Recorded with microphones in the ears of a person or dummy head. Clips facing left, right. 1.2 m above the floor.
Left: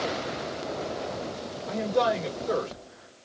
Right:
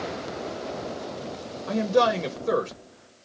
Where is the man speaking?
70° right (ahead or behind), 1.2 m.